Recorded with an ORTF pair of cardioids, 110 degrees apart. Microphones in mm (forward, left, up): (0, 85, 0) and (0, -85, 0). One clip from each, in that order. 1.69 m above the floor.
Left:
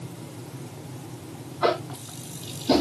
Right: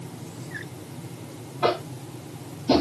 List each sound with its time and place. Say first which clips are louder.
1.6 s tapping: even; 5° right, 4 m